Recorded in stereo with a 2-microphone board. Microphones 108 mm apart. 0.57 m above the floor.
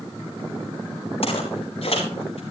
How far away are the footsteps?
About 5.5 m.